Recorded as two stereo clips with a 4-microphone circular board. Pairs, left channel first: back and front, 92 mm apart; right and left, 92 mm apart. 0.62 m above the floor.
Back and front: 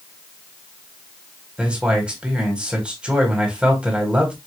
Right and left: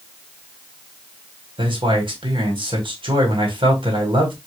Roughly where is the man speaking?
Left.